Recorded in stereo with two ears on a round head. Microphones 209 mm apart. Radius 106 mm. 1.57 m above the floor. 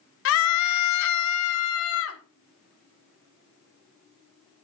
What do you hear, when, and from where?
0.2 s a scream: 50° left (ahead or behind), 0.6 m; by 2.2 s 60° left (ahead or behind), 1.4 m